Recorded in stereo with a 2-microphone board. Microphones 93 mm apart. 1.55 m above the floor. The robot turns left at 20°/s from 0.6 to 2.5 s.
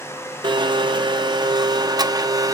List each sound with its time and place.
0.4 s a blender: 90° right, 0.6 m; by 2.5 s 130° right, 0.6 m